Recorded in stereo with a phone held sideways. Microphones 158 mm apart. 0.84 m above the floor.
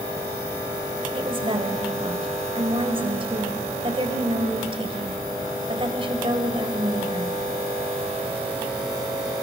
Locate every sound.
1.1 s a woman speaking: 35° right (ahead or behind), 3 m